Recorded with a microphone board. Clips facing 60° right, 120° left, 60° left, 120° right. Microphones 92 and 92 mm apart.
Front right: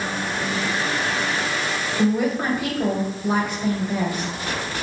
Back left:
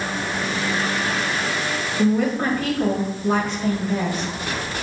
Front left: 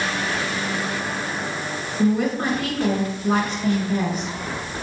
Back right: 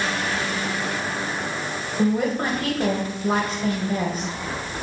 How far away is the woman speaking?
About 1.5 m.